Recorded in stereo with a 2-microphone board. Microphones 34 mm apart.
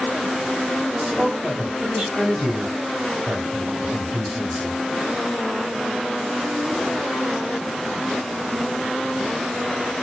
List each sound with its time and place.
1.0 s a man speaking: 25° right (ahead or behind), 2.0 m